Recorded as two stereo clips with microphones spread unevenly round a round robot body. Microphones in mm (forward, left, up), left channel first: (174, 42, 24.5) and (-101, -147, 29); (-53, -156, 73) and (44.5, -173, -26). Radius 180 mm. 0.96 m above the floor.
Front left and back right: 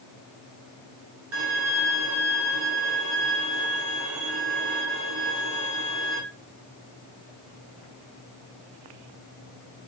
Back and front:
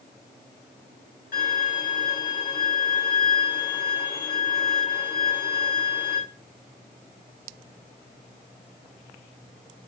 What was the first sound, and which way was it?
A violin, 165° left.